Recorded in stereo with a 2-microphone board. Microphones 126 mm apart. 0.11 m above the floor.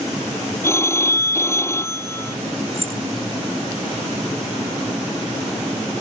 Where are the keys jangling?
50° right (ahead or behind).